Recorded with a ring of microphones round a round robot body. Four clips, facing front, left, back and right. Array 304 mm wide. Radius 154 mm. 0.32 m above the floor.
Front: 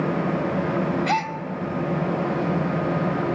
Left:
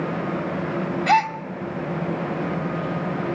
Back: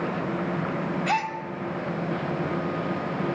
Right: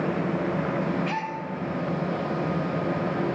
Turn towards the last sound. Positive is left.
turn(degrees=85)